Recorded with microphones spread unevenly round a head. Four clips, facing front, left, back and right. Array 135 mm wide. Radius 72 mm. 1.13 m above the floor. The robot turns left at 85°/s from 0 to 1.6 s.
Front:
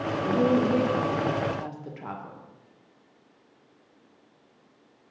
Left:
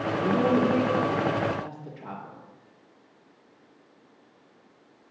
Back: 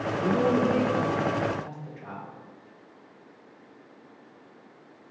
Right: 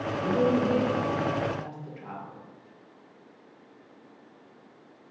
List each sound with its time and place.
0.2 s a woman speaking: 135° left, 1.2 m; by 2.4 s 20° left, 1.2 m